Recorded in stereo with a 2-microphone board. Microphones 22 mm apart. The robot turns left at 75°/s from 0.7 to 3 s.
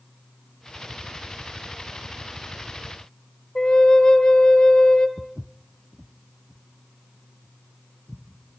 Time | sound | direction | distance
3.5 | a flute | 40° left (ahead or behind) | 1.7 m
5.2 | footsteps | 15° right (ahead or behind) | 0.6 m